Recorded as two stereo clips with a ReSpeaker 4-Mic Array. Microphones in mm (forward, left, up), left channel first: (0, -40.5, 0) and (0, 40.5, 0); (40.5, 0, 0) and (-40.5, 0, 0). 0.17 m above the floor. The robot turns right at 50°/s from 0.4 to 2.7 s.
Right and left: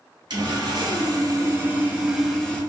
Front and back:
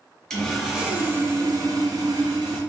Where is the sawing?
80° left, 1.2 m; by 2.6 s 170° right, 1.2 m.